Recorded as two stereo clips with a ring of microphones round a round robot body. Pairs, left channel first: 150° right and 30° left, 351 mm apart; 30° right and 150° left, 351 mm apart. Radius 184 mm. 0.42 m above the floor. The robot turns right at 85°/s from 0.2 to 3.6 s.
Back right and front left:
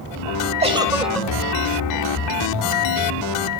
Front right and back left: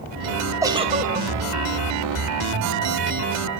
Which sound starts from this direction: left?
A giggle, at 0.6 s.